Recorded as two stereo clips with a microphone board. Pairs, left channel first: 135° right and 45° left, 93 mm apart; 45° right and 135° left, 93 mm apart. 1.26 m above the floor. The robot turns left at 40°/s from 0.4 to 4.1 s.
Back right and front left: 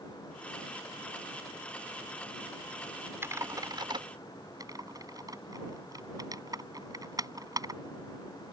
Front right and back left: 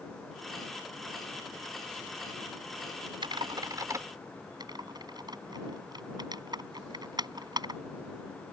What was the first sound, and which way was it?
Typing on a keyboard, 110° left.